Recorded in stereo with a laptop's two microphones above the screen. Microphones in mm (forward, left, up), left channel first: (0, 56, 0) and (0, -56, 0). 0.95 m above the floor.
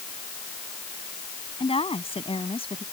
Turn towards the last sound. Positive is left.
turn(degrees=55)  # may be behind; listen again after turning